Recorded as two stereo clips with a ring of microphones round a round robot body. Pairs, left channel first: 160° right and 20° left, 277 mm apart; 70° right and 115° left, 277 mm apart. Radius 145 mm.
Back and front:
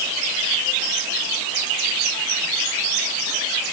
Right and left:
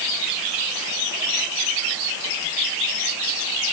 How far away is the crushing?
I don't hear crushing.